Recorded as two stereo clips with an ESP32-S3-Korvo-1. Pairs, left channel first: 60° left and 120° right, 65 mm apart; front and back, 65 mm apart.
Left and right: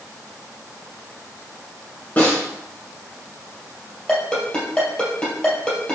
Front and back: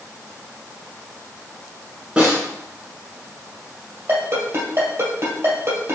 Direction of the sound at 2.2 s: 110° left.